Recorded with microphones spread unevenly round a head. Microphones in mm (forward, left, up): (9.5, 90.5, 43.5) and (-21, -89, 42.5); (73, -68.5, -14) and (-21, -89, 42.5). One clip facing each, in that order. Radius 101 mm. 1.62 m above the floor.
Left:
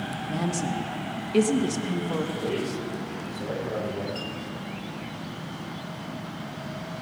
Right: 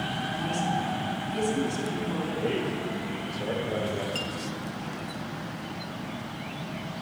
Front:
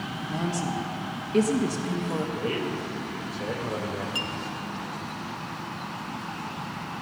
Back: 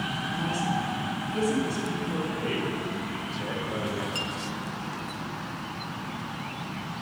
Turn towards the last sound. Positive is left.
turn(degrees=-120)